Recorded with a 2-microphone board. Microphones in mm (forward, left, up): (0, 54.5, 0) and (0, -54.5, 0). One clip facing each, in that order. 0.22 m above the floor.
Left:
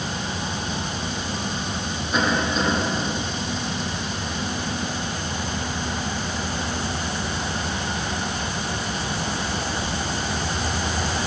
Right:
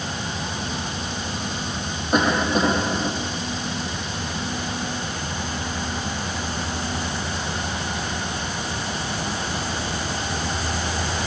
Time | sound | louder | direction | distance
2.1 | a cough | right 3 dB | 55° right (ahead or behind) | 7.5 m